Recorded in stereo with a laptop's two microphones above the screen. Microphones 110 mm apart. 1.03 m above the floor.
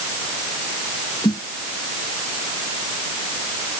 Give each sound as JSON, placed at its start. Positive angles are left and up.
{"t": 1.2, "sound": "a snare drum", "side_deg": 40}